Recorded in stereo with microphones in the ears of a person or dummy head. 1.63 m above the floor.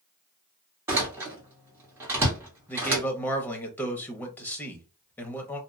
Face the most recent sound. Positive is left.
turn(degrees=10)  # may be behind; listen again after turning